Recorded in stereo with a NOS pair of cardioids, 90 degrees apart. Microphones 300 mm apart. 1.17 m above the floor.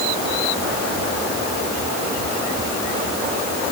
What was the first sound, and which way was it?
Only background noise.